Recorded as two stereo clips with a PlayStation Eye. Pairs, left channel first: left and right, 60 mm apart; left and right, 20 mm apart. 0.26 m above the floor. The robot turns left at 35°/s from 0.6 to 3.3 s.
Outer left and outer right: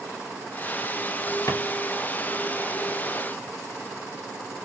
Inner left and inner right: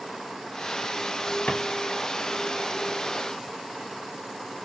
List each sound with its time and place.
1.5 s a drawer: 60° left (ahead or behind), 1.8 m; by 1.6 s 65° left (ahead or behind), 1.8 m